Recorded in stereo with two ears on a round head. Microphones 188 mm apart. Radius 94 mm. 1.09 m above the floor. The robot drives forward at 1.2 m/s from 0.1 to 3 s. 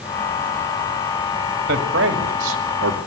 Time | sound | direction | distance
1.7 | a man speaking | 45° right (ahead or behind) | 3 m